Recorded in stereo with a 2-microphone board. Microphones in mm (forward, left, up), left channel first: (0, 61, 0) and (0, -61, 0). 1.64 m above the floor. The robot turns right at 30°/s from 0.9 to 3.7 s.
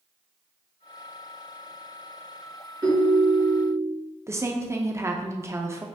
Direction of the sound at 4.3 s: 25° right (ahead or behind).